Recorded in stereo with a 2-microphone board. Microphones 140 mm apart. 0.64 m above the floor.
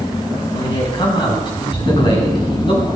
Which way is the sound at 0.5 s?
35° left (ahead or behind).